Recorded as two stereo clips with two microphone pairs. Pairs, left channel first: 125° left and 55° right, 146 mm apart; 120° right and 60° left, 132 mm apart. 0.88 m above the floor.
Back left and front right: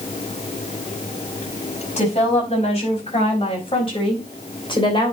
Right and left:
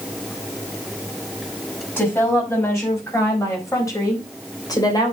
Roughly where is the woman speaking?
Behind.